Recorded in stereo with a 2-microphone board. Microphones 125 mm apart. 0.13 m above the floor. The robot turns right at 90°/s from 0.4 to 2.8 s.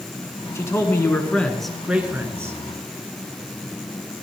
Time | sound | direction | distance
0.6 | a man speaking | 20° left (ahead or behind) | 1.3 m